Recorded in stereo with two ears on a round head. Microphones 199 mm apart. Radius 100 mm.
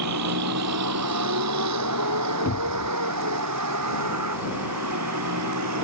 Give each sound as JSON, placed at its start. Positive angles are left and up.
{"t": 0.0, "sound": "a vehicle", "side_deg": -85}
{"t": 2.5, "sound": "a cupboard door", "side_deg": 45}